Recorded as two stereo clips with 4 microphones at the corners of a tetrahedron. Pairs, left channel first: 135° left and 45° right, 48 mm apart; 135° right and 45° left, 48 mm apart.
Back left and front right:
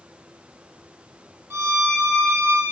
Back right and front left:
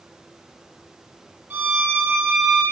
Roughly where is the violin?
Ahead.